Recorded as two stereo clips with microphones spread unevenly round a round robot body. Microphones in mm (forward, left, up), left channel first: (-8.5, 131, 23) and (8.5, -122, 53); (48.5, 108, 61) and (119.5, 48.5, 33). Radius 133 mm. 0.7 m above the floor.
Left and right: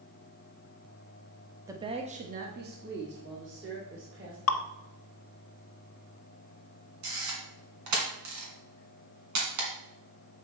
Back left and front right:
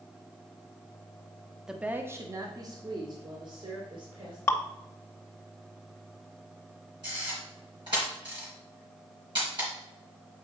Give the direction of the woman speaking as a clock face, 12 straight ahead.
12 o'clock.